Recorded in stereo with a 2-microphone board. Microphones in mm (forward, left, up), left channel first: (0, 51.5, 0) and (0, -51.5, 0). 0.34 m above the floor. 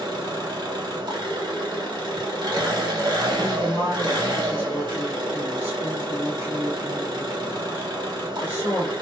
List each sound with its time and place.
0.0 s an engine running: 50° right (ahead or behind), 0.9 m
3.4 s a woman speaking: 25° right (ahead or behind), 1.2 m